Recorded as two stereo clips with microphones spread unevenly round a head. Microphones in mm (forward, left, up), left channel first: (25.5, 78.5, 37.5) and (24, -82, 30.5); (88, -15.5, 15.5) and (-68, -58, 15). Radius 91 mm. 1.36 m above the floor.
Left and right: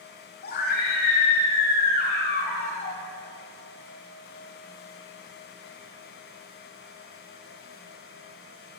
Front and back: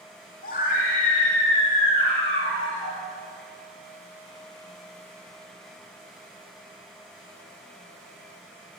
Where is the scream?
65° left, 3 m.